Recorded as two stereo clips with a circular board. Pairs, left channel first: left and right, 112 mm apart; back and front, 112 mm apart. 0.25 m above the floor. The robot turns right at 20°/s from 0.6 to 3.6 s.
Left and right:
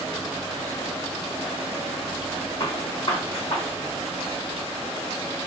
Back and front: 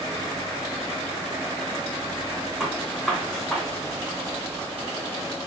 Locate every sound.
2.6 s a gunshot: 80° left, 1.8 m; by 3.7 s 100° left, 1.8 m